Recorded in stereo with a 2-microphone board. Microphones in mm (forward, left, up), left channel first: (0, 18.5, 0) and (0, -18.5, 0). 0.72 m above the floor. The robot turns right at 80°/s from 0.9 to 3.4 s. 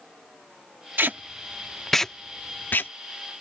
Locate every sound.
1.0 s tape being pulled: 65° right (ahead or behind); by 2.9 s 75° left (ahead or behind)